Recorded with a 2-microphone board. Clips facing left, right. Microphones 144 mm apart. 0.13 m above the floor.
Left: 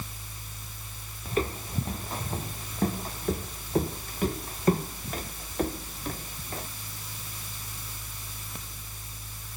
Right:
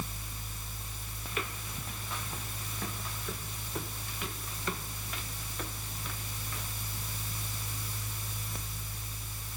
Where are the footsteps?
35° left (ahead or behind); by 6.7 s 40° left (ahead or behind).